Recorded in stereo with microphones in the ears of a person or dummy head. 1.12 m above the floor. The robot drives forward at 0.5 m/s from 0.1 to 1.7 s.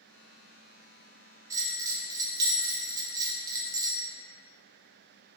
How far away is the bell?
About 0.7 m.